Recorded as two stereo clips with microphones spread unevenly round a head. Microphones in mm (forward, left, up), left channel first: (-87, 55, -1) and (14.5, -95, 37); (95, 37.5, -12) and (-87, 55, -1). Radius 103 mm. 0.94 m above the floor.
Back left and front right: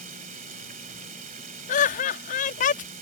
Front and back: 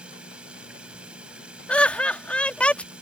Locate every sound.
0.0 s running water: 100° right
1.7 s laughter: 75° left